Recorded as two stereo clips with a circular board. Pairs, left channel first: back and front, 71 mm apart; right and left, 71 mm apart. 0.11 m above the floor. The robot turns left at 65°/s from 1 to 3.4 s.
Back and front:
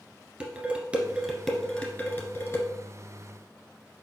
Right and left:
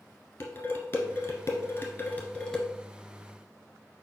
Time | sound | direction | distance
0.4 | dishes clattering | 60° right | 1.0 m